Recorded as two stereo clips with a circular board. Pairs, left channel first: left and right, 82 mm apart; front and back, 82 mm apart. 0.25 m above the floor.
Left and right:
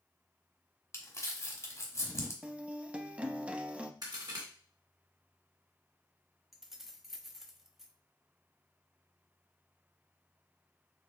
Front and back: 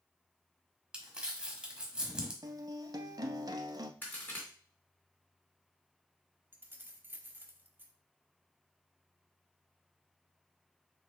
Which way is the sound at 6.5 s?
170° right.